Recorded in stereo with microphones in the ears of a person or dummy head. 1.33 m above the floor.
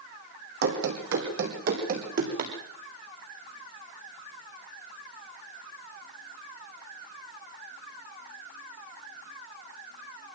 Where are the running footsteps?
65° right (ahead or behind), 4 m; by 2.5 s 35° right (ahead or behind), 4.5 m.